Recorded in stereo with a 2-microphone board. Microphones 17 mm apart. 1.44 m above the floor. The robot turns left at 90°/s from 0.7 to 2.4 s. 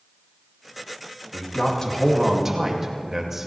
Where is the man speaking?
80° left, 2 m; by 3.5 s 15° right, 2 m.